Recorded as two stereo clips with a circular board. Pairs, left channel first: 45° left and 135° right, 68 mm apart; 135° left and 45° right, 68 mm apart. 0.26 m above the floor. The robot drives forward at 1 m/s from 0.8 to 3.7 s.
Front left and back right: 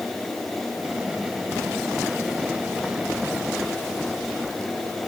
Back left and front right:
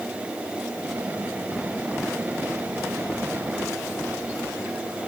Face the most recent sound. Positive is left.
No sound to turn to.